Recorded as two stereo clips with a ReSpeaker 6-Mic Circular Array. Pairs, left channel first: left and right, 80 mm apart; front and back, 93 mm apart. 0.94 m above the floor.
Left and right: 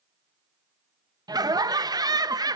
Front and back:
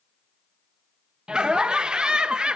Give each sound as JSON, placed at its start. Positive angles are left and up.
{"t": 1.3, "sound": "laughter", "azimuth_deg": -100, "distance_m": 0.5}